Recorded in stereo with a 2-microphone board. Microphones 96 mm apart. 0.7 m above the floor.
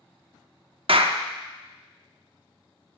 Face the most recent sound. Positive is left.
turn(degrees=-70)  # may be behind; listen again after turning